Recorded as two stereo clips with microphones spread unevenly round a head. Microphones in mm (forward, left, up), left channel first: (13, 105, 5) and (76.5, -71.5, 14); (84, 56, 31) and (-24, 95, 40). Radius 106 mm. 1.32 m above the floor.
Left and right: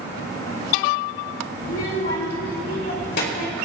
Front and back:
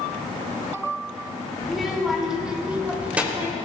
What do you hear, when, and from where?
1.6 s a child speaking: 70° left, 2.5 m; by 3.5 s 85° left, 3 m